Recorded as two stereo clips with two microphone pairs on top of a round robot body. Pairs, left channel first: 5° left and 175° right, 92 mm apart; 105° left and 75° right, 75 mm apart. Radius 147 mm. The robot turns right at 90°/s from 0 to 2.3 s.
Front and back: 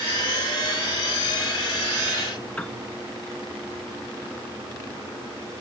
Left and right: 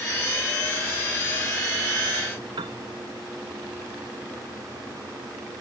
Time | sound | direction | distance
2.6 | a piano | 75° right | ?